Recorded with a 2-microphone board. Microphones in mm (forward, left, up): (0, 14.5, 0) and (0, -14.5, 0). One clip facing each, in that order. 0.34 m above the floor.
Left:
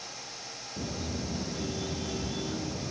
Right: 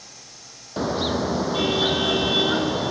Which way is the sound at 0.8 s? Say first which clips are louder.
Right 14 dB; 80° right.